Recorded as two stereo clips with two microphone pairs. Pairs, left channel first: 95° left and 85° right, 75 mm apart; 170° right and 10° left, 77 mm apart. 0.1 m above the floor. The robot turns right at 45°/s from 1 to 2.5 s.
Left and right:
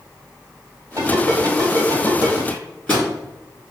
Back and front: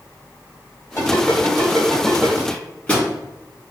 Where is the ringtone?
120° right, 1.5 m; by 2.4 s 55° right, 1.5 m.